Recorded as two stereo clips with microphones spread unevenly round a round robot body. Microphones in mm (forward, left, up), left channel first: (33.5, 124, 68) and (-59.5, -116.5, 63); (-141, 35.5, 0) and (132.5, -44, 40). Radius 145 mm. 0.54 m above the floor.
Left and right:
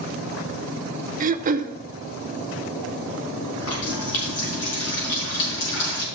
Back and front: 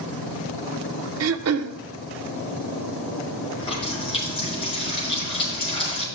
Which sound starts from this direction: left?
A running tap, at 3.6 s.